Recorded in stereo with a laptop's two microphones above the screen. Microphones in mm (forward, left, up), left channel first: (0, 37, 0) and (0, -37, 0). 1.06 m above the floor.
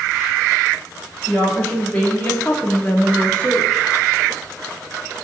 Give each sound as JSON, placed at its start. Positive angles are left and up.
{"t": 1.3, "sound": "a woman speaking", "side_deg": 10, "distance_m": 1.6}